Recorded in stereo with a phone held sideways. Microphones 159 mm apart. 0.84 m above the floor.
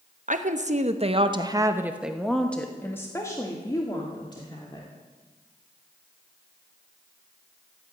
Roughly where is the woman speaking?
Right.